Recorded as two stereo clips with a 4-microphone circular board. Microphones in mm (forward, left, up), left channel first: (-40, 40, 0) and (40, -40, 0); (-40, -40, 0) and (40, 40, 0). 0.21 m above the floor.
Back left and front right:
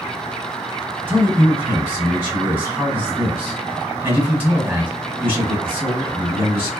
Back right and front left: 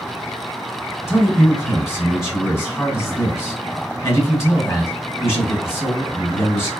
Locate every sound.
1.1 s a man speaking: 95° right, 1.7 m